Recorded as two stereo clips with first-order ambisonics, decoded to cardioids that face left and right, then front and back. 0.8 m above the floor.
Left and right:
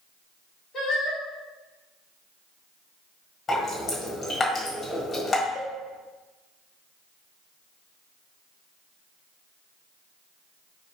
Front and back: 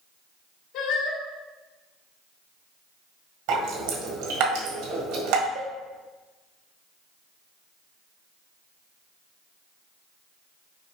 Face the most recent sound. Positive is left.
turn(degrees=155)